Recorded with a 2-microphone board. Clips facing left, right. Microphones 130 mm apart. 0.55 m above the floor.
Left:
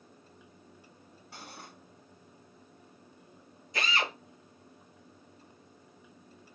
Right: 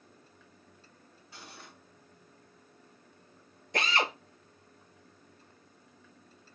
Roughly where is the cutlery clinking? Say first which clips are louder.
Left 3 dB; left.